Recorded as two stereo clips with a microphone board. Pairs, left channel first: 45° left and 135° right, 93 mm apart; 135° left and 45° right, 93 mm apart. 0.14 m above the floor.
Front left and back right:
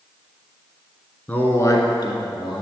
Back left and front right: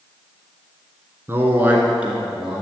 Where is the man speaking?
15° right, 1.1 m; by 2.6 s 40° left, 2.0 m.